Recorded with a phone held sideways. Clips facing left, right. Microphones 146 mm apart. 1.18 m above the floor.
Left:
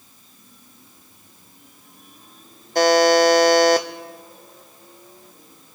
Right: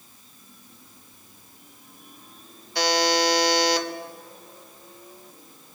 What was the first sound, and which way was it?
A buzzer, 50° left (ahead or behind).